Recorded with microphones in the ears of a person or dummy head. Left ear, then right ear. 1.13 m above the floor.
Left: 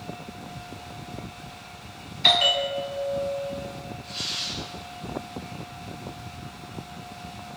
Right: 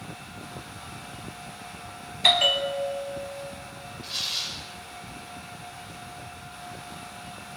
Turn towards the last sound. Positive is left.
turn(degrees=-55)  # may be behind; listen again after turning